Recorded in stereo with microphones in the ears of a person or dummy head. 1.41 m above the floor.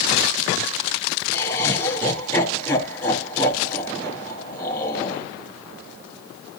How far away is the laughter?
About 1.9 m.